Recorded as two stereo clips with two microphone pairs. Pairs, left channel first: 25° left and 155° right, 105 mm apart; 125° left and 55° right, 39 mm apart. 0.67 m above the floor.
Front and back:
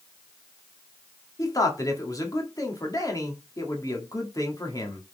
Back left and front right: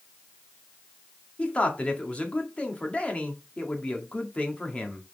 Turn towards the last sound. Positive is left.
turn(degrees=75)